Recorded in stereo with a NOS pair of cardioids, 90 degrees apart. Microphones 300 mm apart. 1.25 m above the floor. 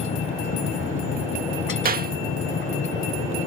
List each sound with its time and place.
0.0 s a machine running: 45° left
1.9 s a clap: 30° right